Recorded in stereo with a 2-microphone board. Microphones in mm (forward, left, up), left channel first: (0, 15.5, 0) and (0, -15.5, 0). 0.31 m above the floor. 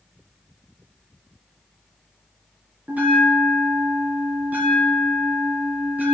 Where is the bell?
60° right (ahead or behind), 3 m.